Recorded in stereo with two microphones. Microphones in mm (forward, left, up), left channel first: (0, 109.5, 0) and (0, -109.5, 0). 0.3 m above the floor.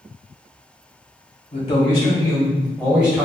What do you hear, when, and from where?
1.5 s a man speaking: 35° left (ahead or behind), 1.5 m; by 3.2 s 10° right (ahead or behind), 1.3 m